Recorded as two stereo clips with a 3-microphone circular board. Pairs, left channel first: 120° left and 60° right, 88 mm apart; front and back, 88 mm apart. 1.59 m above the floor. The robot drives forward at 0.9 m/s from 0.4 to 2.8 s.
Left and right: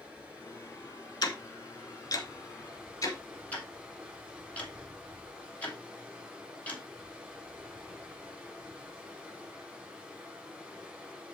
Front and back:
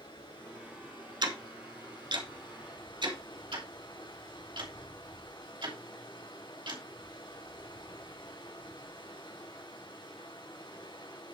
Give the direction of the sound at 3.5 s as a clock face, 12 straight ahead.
6 o'clock.